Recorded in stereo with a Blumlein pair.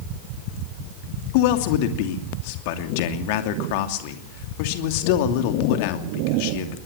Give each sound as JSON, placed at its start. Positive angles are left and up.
{"t": 1.3, "sound": "a man speaking", "azimuth_deg": 45, "distance_m": 2.5}